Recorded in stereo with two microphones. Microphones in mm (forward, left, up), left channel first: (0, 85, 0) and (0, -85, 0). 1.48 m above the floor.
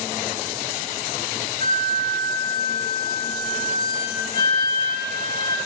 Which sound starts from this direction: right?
A flute, at 1.6 s.